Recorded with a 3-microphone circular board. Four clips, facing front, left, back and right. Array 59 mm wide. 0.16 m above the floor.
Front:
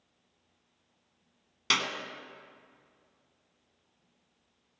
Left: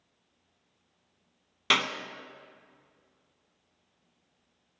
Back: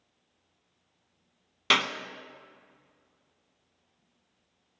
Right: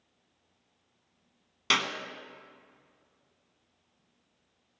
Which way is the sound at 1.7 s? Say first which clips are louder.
Left 2 dB, back 5 dB; 155° left.